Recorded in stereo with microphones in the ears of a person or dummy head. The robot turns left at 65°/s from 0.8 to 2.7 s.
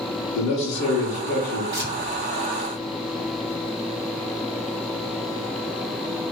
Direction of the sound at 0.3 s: 100° left.